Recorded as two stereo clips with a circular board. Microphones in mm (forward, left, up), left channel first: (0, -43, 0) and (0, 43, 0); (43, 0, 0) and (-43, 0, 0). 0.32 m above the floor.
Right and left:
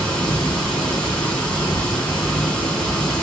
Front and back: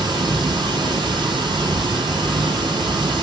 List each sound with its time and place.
0.0 s running water: 175° right, 2.5 m